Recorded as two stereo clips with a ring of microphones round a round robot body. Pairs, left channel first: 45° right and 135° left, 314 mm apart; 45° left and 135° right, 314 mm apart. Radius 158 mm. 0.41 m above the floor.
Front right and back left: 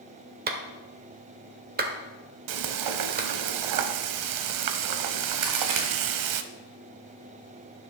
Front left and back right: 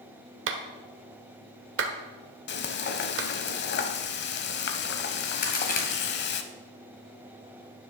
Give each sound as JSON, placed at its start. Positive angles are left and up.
{"t": 0.5, "sound": "a clap", "azimuth_deg": -170, "distance_m": 1.2}
{"t": 2.5, "sound": "frying", "azimuth_deg": 105, "distance_m": 0.7}
{"t": 5.4, "sound": "a crack", "azimuth_deg": 110, "distance_m": 1.7}